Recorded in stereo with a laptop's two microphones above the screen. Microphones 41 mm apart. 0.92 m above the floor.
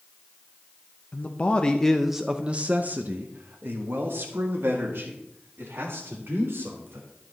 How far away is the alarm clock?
No alarm clock in this recording.